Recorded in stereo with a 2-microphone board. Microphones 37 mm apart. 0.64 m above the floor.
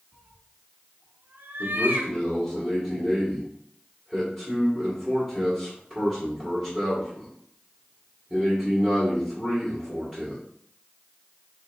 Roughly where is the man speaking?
Centre.